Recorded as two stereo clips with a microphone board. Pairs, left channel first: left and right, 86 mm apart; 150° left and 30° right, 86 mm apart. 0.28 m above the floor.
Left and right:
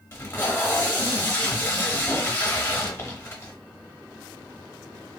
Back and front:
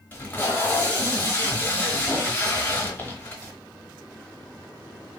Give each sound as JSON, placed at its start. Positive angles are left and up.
{"t": 0.1, "sound": "tape being pulled", "azimuth_deg": 115, "distance_m": 0.8}